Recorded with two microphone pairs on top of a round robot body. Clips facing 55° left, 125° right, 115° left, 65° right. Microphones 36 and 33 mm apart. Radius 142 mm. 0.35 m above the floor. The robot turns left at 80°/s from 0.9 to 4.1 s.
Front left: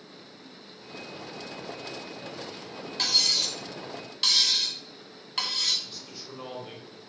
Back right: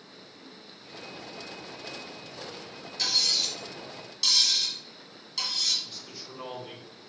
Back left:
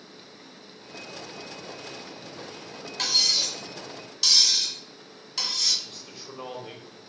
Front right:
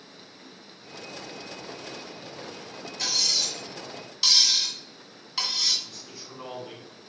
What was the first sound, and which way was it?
Cutlery clinking, 105° left.